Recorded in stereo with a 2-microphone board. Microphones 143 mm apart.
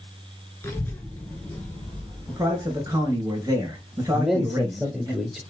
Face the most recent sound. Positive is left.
turn(degrees=0)  # may be behind; listen again after turning